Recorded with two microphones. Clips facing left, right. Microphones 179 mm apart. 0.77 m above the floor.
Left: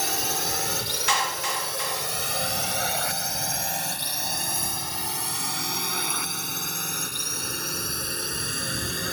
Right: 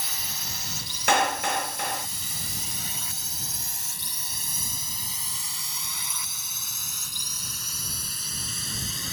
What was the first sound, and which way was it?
A drone, 65° left (ahead or behind).